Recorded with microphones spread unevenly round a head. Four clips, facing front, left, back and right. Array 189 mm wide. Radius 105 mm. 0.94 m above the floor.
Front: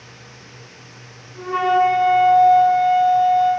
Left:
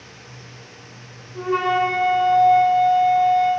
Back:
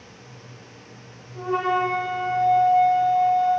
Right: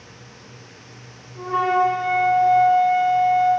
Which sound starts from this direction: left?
A flute, at 1.4 s.